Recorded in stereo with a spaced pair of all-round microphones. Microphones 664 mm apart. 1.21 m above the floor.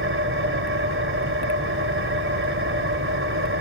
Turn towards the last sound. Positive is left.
turn(degrees=-20)  # may be behind; listen again after turning